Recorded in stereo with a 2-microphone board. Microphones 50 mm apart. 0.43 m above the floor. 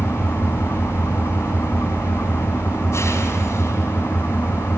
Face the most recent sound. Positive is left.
turn(degrees=60)  # may be behind; listen again after turning